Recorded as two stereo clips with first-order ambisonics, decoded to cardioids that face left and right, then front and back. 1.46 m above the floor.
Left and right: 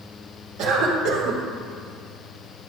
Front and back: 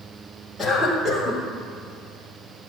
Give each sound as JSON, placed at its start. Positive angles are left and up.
{"t": 0.6, "sound": "a cough", "azimuth_deg": -90, "distance_m": 1.7}